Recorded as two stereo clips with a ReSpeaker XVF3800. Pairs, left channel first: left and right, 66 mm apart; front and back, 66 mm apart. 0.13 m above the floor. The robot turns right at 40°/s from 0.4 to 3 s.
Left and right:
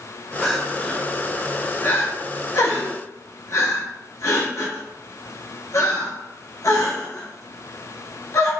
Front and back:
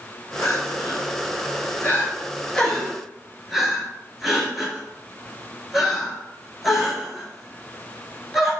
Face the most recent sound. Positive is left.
turn(degrees=95)